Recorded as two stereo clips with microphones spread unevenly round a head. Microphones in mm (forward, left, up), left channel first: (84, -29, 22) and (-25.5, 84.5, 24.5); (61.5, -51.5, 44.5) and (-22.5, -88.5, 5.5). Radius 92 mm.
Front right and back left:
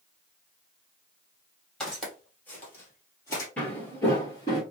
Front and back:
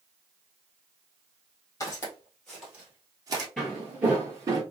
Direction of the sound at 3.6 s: 30° left.